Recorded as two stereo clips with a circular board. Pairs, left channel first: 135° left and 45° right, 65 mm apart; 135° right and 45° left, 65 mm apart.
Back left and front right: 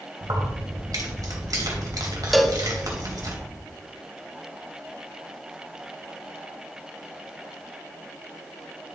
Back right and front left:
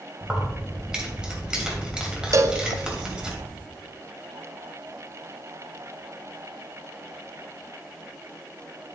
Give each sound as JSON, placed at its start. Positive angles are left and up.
{"t": 0.2, "sound": "keys jangling", "azimuth_deg": -30, "distance_m": 2.5}
{"t": 2.3, "sound": "a cowbell", "azimuth_deg": 45, "distance_m": 0.6}